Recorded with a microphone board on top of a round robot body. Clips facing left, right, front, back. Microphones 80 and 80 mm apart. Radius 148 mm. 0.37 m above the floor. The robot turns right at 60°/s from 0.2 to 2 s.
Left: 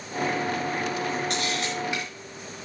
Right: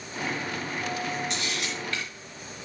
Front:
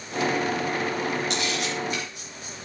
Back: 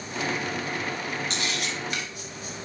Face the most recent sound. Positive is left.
turn(degrees=165)